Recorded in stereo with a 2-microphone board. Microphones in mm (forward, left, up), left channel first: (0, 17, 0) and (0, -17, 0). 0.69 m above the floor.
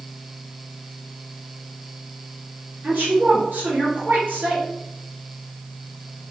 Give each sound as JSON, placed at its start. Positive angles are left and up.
{"t": 2.8, "sound": "a woman speaking", "side_deg": -65, "distance_m": 2.0}